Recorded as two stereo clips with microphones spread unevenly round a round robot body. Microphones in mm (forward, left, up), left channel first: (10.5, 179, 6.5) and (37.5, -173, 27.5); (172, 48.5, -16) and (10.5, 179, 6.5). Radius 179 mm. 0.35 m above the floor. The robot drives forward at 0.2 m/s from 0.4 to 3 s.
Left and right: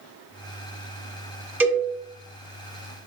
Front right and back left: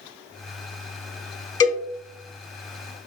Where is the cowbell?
Straight ahead, 1.4 m.